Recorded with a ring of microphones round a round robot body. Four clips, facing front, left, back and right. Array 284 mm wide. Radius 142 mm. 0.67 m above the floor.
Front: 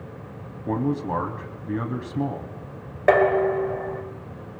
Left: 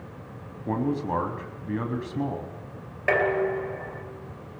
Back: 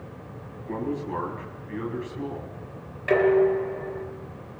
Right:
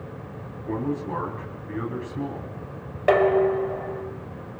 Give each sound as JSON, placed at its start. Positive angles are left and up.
{"t": 0.7, "sound": "a man speaking", "azimuth_deg": 30, "distance_m": 4.5}
{"t": 3.1, "sound": "dishes clattering", "azimuth_deg": -20, "distance_m": 3.0}